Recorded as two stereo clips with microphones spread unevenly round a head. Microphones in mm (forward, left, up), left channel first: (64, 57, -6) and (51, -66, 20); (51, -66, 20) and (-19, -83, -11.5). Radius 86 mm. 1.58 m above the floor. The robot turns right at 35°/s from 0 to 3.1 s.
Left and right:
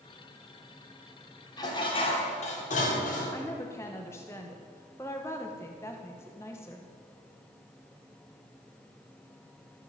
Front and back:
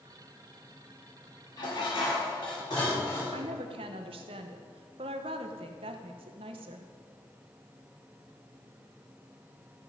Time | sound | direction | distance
1.6 | dishes clattering | 20° left | 3.5 m
3.3 | a woman speaking | 165° left | 1.0 m